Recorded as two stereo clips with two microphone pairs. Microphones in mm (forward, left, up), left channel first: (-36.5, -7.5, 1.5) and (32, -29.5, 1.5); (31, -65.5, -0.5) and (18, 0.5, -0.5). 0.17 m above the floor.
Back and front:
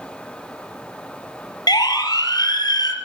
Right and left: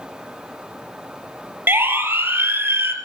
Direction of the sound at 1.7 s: 160° left.